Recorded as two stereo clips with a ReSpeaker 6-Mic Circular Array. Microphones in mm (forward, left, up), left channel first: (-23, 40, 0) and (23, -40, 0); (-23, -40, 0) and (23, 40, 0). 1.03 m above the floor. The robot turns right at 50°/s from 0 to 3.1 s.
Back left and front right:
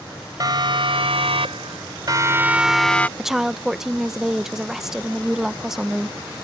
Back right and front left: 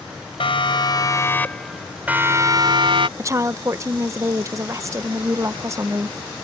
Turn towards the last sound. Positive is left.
turn(degrees=25)